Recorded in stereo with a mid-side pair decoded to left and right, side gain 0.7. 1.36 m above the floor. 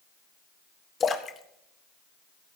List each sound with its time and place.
1.0 s a splash: 30° left, 1.6 m